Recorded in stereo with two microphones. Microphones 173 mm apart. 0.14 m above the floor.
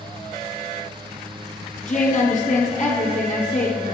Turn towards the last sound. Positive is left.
turn(degrees=50)  # may be behind; listen again after turning